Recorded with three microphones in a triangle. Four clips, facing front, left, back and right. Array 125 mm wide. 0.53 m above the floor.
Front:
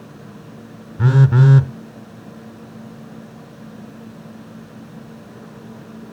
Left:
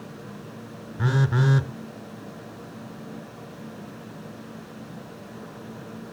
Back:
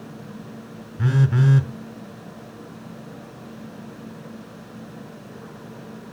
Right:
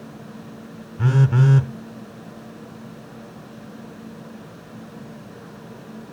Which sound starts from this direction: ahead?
A phone buzzing, at 1.0 s.